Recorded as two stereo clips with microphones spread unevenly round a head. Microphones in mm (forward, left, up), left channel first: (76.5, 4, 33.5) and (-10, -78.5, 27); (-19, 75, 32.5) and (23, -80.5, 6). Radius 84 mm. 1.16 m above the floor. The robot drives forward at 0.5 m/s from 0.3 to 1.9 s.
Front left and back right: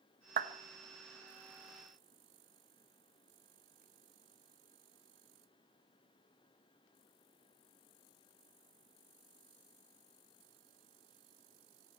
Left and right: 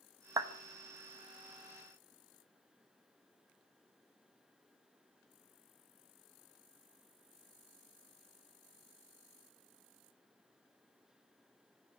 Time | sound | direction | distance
0.4 | a clap | 145° right | 1.1 m